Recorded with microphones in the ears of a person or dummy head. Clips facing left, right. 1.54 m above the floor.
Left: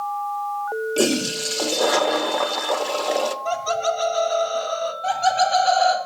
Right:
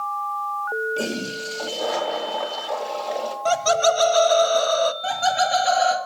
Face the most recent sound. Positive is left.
turn(degrees=-15)  # may be behind; listen again after turning